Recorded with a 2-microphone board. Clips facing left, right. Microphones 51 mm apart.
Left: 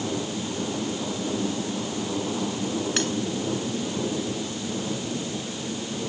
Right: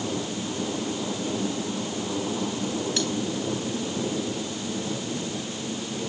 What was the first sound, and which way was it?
Cutlery clinking, 45° left (ahead or behind).